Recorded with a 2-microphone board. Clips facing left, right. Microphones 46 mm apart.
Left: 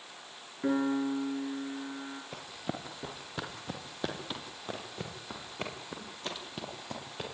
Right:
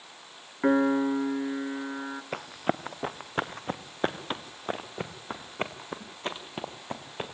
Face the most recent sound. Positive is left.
turn(degrees=-30)  # may be behind; listen again after turning